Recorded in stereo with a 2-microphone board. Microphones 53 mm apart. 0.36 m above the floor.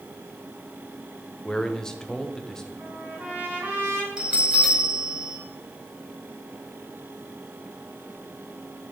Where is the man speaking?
10° left (ahead or behind), 0.9 m.